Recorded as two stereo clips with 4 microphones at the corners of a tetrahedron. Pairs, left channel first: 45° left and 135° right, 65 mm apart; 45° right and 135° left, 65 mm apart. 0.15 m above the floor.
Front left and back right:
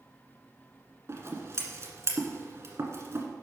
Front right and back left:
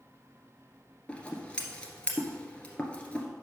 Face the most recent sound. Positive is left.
turn(degrees=-110)